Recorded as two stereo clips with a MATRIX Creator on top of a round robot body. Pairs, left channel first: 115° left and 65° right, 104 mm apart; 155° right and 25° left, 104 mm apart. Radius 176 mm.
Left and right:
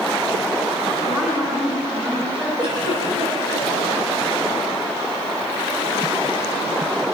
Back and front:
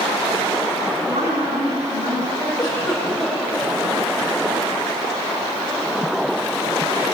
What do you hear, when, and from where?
1.0 s a woman speaking: 10° left, 6 m; by 2.5 s straight ahead, 7 m
2.6 s a giggle: 100° right, 10 m